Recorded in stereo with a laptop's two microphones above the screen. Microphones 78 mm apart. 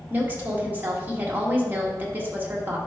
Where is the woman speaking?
25° right (ahead or behind), 1.2 m.